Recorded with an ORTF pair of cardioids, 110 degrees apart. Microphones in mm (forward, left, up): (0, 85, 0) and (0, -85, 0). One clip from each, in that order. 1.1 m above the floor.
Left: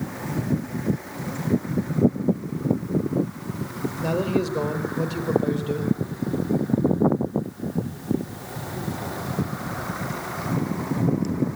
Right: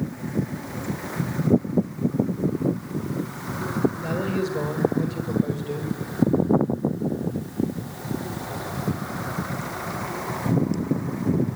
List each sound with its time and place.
4.0 s a man speaking: 25° left, 4 m